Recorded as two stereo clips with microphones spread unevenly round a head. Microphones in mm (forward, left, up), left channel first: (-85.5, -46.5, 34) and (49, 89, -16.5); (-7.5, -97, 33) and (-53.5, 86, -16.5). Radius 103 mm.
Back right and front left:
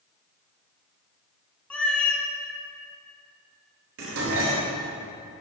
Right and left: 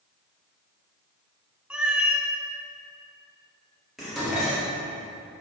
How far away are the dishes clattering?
About 1.8 m.